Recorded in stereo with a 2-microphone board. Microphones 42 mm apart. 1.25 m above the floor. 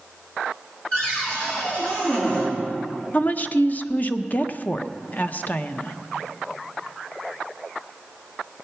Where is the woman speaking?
40° left (ahead or behind), 0.7 m.